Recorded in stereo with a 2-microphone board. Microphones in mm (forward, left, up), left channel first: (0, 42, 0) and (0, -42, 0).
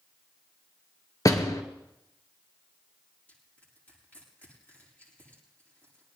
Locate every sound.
1.2 s a door slam: 45° left (ahead or behind), 1.7 m
3.3 s crushing: 20° left (ahead or behind), 8.5 m